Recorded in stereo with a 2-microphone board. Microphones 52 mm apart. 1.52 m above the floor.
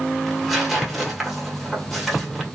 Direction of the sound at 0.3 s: Centre (ahead or behind).